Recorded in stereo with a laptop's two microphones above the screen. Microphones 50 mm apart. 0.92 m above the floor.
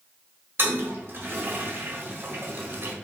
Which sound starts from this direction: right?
A toilet flushing, at 0.6 s.